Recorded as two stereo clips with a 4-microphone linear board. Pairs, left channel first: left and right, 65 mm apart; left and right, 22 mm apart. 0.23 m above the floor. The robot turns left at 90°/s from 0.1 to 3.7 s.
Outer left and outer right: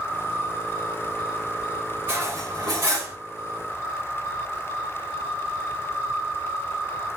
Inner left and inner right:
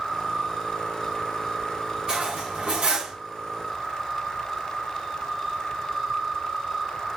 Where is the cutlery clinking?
40° right, 2 m; by 3.1 s 135° right, 2 m.